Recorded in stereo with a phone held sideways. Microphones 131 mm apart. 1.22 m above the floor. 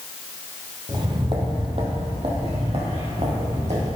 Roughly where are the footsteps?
Right.